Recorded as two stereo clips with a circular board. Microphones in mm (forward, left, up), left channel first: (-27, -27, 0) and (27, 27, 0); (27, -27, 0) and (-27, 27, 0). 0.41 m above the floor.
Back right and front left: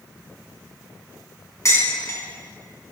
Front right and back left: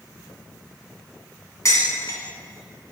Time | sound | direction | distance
1.6 | dishes clattering | 90° right | 2 m